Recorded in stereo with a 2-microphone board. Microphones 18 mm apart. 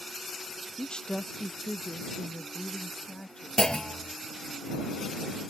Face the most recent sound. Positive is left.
turn(degrees=60)  # may be behind; listen again after turning